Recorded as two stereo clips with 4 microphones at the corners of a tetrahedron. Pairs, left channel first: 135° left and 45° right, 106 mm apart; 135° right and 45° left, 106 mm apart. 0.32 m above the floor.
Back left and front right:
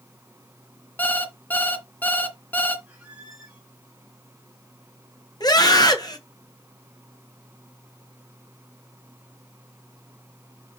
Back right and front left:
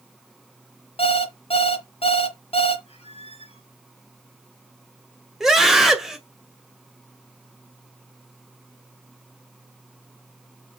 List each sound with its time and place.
1.0 s an alarm clock: 150° right, 1.4 m
2.9 s a squeak: 125° right, 3.5 m
5.4 s a scream: 130° left, 1.8 m